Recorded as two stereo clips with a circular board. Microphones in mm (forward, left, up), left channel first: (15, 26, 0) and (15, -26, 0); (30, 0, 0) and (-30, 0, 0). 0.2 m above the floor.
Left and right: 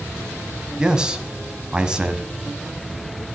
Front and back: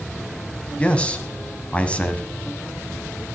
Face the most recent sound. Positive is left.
turn(degrees=-40)